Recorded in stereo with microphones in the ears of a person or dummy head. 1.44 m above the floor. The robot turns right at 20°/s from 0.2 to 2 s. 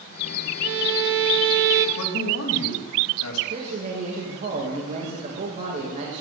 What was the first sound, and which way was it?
A violin, 65° right (ahead or behind).